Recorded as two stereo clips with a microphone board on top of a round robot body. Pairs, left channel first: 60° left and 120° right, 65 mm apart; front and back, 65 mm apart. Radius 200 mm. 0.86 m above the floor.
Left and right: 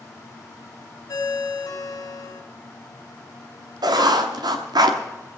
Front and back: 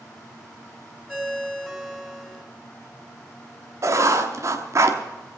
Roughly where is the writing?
Behind right.